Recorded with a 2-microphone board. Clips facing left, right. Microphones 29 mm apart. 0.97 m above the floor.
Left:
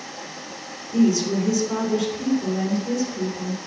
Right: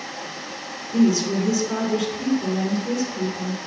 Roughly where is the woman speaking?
Centre.